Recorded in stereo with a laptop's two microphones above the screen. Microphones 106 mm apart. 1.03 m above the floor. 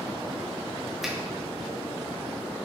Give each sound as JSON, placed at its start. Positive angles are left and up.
{"t": 1.0, "sound": "a finger snap", "side_deg": -5, "distance_m": 0.5}